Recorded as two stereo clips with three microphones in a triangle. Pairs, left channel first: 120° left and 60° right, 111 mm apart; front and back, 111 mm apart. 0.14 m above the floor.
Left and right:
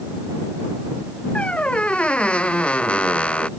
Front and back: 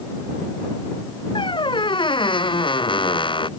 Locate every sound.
1.4 s a squeak: 40° left